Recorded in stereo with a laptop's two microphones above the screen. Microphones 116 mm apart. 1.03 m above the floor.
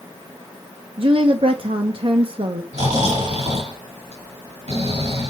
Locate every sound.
1.0 s a woman speaking: 50° right (ahead or behind), 0.8 m
2.7 s snoring: 75° right (ahead or behind), 4.5 m